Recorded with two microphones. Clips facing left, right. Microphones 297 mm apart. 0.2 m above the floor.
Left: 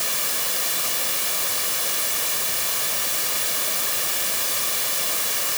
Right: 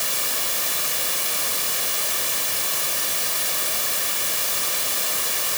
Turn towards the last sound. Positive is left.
No sound to turn to.